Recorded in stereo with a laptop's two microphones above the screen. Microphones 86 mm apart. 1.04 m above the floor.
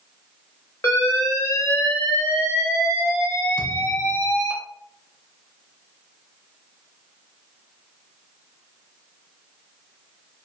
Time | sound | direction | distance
0.8 | an alarm | 30° left (ahead or behind) | 0.8 m
3.6 | a thud | 65° left (ahead or behind) | 1.0 m